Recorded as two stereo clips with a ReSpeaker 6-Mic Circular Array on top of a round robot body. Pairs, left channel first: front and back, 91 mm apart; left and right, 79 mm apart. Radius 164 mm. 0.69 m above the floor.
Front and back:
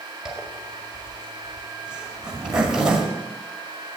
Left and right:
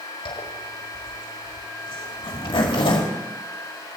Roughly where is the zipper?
Left.